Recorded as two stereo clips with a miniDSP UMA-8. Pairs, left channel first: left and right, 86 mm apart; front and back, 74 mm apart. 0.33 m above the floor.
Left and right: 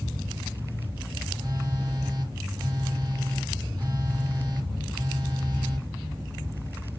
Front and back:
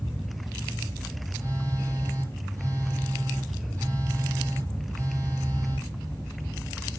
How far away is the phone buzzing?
About 4.5 m.